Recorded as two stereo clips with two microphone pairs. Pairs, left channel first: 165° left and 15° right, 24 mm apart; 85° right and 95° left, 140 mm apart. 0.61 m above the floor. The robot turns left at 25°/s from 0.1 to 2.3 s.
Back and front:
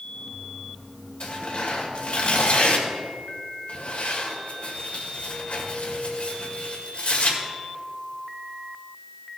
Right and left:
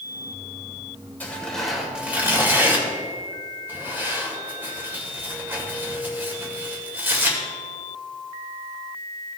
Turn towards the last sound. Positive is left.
turn(degrees=170)